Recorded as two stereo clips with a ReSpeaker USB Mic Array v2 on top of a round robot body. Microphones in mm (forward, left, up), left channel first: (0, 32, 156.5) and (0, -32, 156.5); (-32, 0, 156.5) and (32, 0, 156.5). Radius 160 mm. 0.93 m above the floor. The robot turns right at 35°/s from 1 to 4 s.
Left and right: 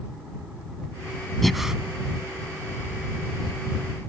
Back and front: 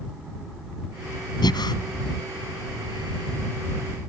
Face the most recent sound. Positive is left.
turn(degrees=-95)